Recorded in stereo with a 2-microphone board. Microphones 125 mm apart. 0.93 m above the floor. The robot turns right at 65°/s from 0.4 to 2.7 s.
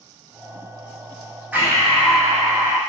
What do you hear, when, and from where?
1.5 s breathing: 165° right, 0.8 m; by 2.8 s 90° right, 0.8 m